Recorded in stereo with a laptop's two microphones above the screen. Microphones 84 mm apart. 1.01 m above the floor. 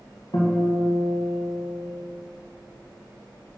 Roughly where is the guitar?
Left.